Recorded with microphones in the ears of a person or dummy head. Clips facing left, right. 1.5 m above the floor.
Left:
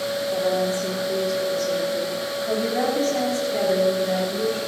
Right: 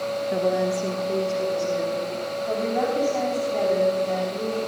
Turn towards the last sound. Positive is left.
turn(degrees=15)  # may be behind; listen again after turning